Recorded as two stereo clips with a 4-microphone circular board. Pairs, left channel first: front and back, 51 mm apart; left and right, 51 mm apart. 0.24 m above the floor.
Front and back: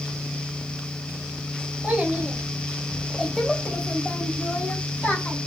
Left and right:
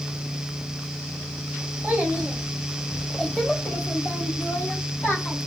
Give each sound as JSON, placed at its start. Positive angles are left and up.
{"t": 1.8, "sound": "a child speaking", "azimuth_deg": -130, "distance_m": 1.1}